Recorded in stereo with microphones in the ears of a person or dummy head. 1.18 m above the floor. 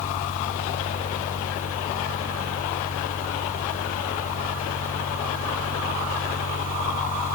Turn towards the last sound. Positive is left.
turn(degrees=45)  # may be behind; listen again after turning